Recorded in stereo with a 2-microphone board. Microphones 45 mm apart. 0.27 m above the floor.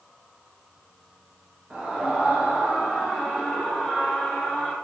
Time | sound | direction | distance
1.7 | a scream | 25° right (ahead or behind) | 3.5 m